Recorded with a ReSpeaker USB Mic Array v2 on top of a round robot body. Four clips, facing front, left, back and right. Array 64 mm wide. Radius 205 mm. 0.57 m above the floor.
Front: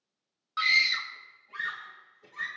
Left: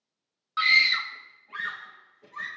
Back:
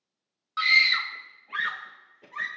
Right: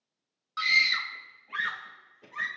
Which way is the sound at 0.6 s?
100° left.